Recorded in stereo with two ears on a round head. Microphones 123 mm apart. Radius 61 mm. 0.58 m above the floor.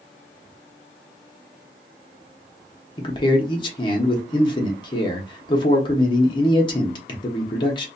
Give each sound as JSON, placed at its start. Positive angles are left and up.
{"t": 3.0, "sound": "a man speaking", "side_deg": 35, "distance_m": 0.8}